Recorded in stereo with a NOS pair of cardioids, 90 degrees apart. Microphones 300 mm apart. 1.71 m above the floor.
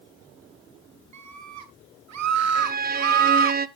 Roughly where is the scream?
Right.